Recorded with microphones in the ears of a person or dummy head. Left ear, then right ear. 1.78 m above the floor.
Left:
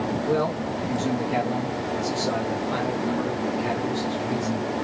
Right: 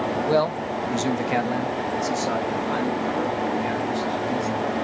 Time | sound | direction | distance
0.3 | a man speaking | 50° right (ahead or behind) | 0.9 m